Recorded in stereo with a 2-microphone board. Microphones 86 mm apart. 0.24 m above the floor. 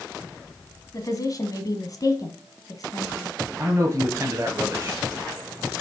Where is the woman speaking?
50° left (ahead or behind), 1.5 m.